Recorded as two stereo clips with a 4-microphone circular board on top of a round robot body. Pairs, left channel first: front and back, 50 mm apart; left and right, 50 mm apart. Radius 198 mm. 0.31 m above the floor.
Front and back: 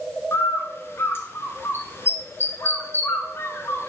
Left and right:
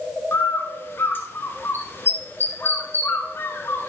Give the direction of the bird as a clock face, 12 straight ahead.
11 o'clock.